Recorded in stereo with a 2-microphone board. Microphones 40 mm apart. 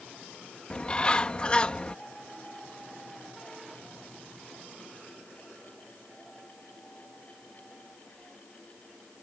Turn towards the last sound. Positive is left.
turn(degrees=25)  # may be behind; listen again after turning